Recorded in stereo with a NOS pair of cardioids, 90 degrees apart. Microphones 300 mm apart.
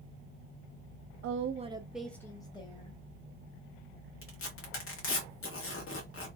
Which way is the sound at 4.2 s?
45° left.